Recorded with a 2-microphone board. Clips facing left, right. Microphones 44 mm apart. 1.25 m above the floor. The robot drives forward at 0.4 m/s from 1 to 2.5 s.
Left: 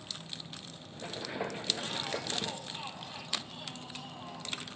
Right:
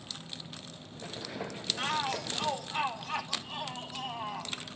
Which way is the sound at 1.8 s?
80° right.